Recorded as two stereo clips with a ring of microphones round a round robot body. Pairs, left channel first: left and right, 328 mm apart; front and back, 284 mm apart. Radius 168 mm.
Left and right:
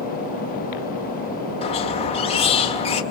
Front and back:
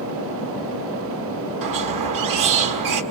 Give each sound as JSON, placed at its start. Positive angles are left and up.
{"t": 1.6, "sound": "a squeak", "azimuth_deg": 165, "distance_m": 2.0}